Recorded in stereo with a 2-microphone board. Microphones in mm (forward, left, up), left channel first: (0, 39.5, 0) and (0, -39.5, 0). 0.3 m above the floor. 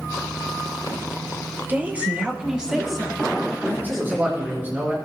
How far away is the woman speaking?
About 1.1 m.